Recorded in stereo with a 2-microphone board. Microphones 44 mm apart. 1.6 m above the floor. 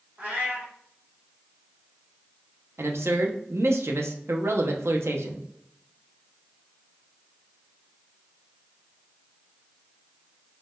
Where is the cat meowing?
35° right (ahead or behind), 1.0 m.